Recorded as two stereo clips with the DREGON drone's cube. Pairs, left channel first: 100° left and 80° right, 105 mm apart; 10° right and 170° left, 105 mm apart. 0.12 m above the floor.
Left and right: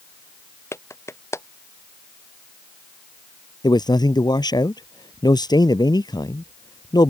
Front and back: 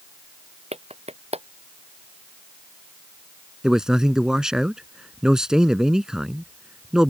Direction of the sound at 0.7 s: 165° left.